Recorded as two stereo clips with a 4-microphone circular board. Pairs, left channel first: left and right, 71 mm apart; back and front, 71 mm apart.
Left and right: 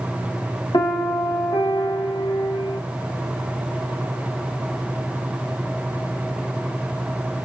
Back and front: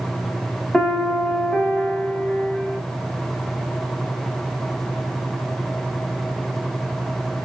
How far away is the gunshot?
No gunshot in this recording.